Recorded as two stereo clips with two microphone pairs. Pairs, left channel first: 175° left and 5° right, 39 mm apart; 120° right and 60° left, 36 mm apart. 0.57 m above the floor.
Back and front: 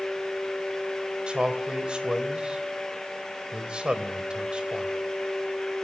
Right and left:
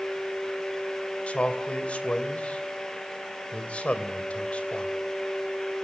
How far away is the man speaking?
About 2.5 m.